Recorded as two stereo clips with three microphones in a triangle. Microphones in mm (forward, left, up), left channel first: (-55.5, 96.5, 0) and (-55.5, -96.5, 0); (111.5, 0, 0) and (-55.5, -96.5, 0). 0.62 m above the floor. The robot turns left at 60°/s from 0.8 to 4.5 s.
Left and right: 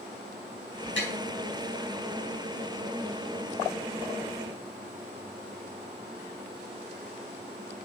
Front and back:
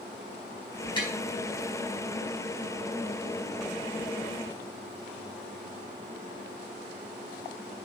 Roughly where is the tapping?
Left.